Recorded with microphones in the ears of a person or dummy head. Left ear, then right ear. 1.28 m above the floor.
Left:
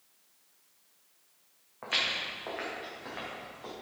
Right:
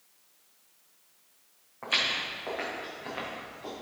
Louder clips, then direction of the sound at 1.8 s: Right 2 dB; 5° left (ahead or behind).